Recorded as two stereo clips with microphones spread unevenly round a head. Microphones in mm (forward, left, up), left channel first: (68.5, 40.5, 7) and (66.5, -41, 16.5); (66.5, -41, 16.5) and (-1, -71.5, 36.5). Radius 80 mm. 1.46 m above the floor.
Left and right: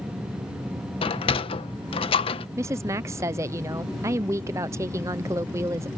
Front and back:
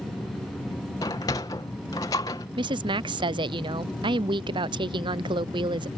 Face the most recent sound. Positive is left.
turn(degrees=-155)